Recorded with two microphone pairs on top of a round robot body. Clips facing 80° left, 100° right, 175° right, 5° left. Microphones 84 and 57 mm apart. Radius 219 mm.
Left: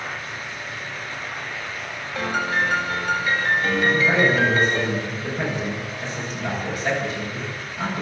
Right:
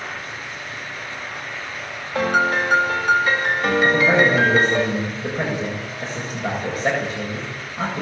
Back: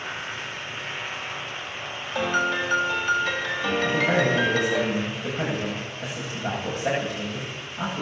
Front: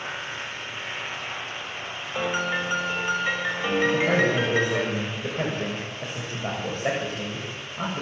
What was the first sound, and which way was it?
A piano, 70° right.